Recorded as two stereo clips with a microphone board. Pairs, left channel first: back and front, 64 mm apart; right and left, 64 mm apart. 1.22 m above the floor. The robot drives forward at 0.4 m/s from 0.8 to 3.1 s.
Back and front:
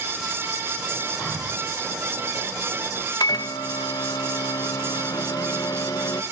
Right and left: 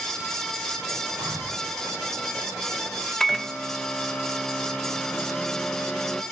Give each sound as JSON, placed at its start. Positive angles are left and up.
{"t": 1.2, "sound": "breathing", "azimuth_deg": 85, "distance_m": 8.5}
{"t": 3.2, "sound": "a microwave", "azimuth_deg": -170, "distance_m": 0.8}